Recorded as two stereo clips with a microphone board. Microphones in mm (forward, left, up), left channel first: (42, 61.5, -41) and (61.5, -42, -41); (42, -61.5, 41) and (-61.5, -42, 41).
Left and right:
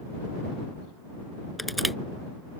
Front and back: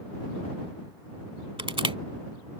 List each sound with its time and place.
1.6 s crushing: 170° right